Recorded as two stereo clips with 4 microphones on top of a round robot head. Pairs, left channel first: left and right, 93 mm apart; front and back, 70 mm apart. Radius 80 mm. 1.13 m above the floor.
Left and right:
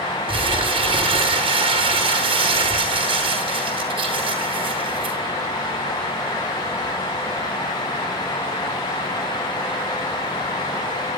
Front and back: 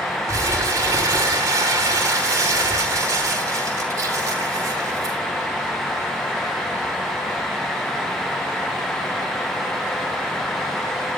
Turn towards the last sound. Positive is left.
turn(degrees=-125)